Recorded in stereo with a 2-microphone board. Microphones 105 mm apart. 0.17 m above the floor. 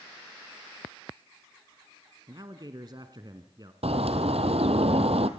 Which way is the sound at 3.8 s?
80° right.